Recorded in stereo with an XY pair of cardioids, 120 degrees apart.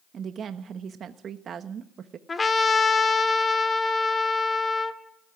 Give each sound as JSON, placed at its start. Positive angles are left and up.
{"t": 0.1, "sound": "a woman speaking", "azimuth_deg": -50, "distance_m": 1.1}
{"t": 2.3, "sound": "a trumpet", "azimuth_deg": 20, "distance_m": 2.0}